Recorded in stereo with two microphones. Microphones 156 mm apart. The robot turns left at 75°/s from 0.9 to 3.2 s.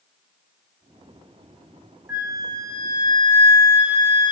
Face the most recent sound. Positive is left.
turn(degrees=-105)